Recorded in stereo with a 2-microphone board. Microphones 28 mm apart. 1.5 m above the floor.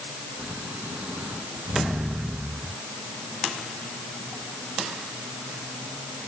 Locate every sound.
0.4 s snoring: 55° right (ahead or behind)